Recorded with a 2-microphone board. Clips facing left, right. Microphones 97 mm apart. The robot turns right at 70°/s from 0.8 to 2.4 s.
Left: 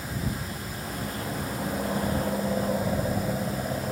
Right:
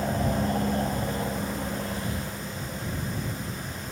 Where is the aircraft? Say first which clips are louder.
Right 7 dB; 55° right; by 3.9 s 55° left.